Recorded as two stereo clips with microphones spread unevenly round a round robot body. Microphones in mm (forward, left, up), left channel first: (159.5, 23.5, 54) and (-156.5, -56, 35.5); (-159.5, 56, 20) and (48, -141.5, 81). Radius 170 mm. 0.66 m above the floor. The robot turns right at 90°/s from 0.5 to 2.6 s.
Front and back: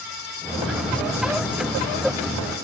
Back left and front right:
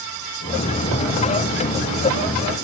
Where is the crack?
No crack in this recording.